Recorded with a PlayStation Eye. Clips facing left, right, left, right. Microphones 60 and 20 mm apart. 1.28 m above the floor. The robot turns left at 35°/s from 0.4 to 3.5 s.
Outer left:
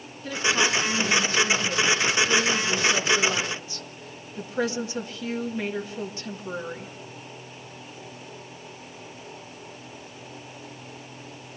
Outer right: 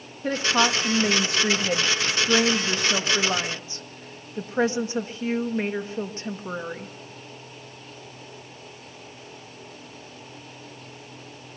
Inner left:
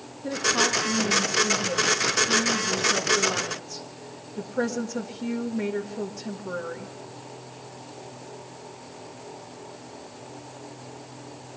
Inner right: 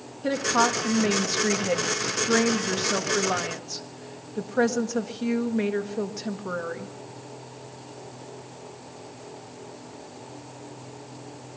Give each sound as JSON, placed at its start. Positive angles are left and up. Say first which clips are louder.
{"t": 0.2, "sound": "a woman speaking", "louder": "outer right 2 dB, inner right 1 dB", "azimuth_deg": -40, "distance_m": 1.7}